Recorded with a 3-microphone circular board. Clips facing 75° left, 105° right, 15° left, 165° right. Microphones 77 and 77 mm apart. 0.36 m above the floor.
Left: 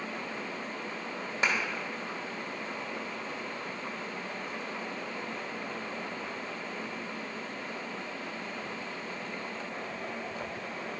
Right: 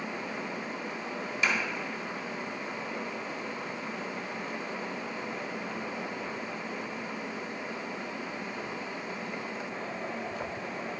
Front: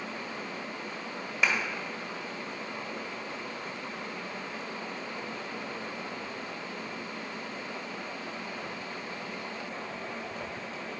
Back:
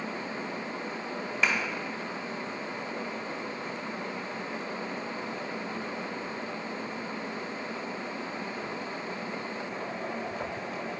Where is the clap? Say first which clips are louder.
Even, even; 95° left, 1.5 m.